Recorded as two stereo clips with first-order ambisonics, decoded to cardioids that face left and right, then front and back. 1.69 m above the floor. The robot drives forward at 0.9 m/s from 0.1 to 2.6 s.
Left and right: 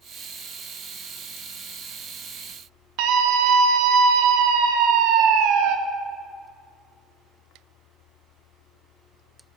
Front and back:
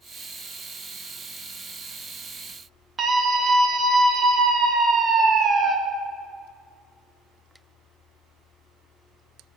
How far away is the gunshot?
I don't hear a gunshot.